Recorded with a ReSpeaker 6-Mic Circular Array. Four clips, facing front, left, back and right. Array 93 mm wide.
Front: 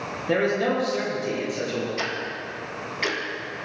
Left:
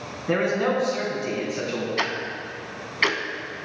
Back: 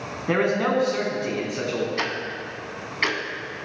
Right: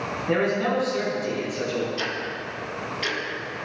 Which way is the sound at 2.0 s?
120° left.